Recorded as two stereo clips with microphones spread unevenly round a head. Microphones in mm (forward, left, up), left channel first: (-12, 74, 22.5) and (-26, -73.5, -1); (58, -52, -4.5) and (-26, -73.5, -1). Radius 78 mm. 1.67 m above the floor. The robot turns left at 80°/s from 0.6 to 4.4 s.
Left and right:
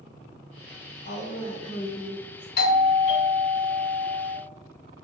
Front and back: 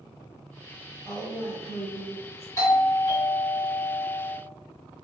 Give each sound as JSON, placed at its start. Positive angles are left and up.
{"t": 1.1, "sound": "a woman speaking", "azimuth_deg": 110, "distance_m": 1.6}
{"t": 2.6, "sound": "a doorbell", "azimuth_deg": 75, "distance_m": 0.7}